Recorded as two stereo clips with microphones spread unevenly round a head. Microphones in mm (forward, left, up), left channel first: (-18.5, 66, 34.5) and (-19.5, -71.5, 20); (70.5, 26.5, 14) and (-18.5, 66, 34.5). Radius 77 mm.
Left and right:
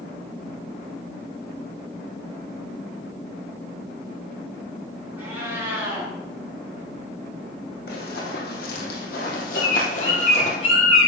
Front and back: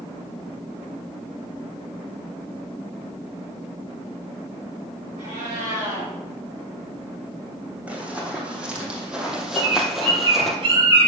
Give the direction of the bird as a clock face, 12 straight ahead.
8 o'clock.